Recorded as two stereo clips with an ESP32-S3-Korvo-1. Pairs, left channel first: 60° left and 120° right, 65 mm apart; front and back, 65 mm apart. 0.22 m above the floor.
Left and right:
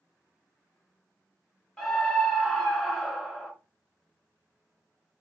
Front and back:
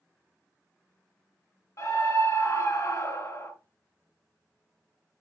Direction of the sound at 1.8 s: 25° right.